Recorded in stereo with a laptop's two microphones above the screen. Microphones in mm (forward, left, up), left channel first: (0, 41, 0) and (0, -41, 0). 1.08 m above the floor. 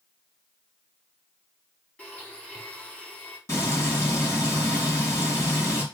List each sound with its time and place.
2.0 s a blender: 15° left (ahead or behind), 4 m
3.5 s frying: 35° left (ahead or behind), 7 m